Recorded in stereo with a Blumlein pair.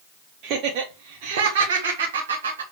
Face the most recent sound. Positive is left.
turn(degrees=-70)